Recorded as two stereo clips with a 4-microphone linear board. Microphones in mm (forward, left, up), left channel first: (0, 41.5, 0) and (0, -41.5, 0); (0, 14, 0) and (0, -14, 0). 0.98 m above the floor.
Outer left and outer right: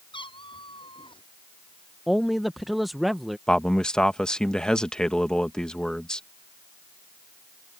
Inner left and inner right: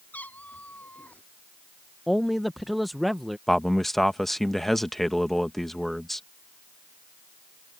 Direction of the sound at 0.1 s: 80° left.